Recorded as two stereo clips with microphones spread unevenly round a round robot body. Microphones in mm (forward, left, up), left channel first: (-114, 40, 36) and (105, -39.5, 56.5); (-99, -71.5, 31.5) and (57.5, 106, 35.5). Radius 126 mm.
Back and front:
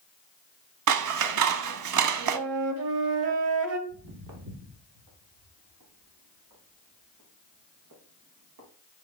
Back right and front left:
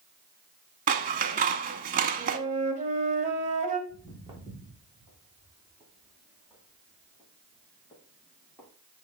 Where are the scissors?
10° right, 0.5 m.